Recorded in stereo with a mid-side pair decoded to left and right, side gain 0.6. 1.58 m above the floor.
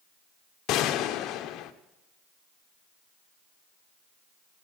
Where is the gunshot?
60° left, 1.0 m.